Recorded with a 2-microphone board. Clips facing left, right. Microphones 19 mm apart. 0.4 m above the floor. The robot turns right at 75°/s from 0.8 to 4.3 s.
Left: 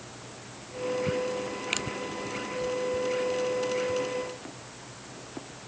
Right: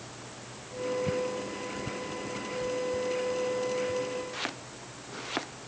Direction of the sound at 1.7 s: 65° left (ahead or behind).